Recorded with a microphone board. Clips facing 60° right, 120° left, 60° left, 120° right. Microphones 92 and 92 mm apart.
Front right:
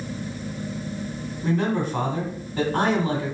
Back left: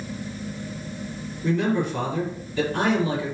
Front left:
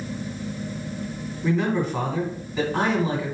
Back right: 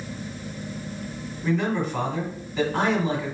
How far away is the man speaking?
About 2.0 m.